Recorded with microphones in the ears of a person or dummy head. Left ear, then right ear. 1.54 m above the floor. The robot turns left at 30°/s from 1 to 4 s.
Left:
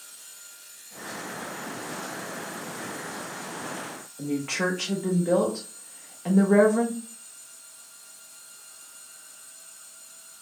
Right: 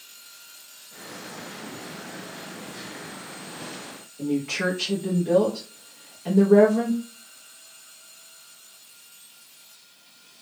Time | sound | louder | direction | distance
4.2 | a woman speaking | right 2 dB | 25° left (ahead or behind) | 0.5 m